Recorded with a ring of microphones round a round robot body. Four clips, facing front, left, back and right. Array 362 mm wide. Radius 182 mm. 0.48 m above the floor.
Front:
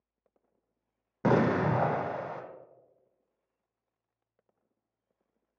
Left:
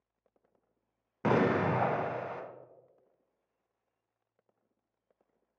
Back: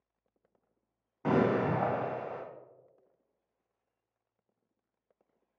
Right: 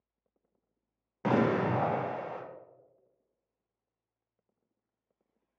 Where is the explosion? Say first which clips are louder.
Even, front 2 dB; 10° left, 0.6 m.